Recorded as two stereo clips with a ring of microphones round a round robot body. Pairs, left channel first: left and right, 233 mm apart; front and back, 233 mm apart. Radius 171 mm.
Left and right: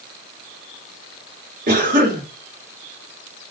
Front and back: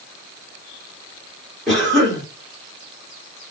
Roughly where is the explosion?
No explosion in this recording.